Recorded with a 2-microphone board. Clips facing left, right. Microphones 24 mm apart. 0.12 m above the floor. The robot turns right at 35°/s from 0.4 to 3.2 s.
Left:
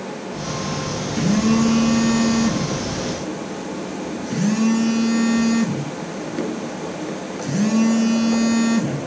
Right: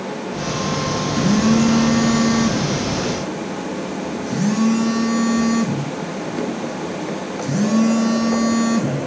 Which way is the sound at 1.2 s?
80° right.